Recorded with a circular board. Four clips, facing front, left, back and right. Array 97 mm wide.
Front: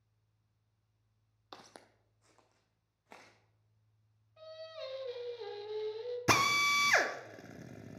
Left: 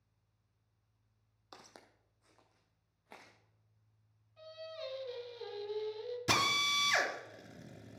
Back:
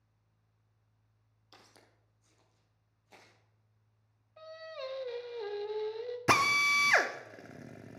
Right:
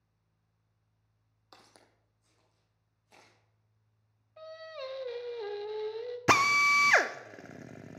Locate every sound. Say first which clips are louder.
1.5 s footsteps: left 2 dB, front 7 dB; 10° left, 1.0 m; by 3.3 s 45° left, 3 m
4.4 s singing: right 3 dB, back 2 dB; 120° right, 0.9 m
6.3 s a drill: right 9 dB, back 2 dB; 105° right, 0.6 m